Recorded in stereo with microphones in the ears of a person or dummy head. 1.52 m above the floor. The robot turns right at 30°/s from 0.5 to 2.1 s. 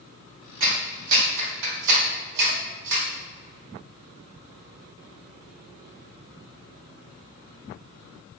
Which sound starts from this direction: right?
A clap, at 0.6 s.